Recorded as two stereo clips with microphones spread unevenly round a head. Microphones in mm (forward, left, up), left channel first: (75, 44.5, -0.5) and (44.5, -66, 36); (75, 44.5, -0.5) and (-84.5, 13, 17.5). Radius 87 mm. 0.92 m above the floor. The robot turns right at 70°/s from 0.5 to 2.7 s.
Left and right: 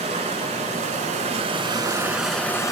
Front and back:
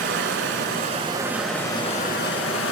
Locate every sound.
0.0 s running water: 150° right, 3 m; by 2.7 s 5° left, 3 m